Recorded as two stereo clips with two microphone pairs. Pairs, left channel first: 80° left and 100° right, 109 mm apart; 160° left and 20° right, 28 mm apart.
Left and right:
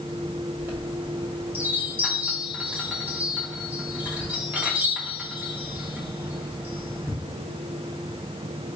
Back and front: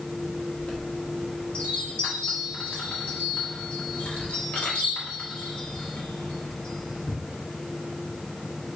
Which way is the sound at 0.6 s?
Straight behind.